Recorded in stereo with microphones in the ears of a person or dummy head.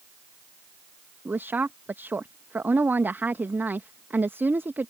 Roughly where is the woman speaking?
Centre.